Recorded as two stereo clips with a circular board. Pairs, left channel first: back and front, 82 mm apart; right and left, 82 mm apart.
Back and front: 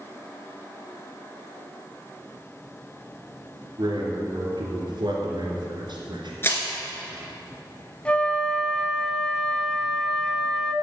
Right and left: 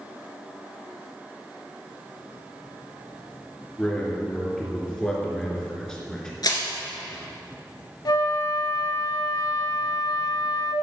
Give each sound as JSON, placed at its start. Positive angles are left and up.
{"t": 3.8, "sound": "a man speaking", "azimuth_deg": -10, "distance_m": 3.0}
{"t": 6.4, "sound": "crushing", "azimuth_deg": -120, "distance_m": 2.0}
{"t": 8.1, "sound": "a flute", "azimuth_deg": -110, "distance_m": 0.7}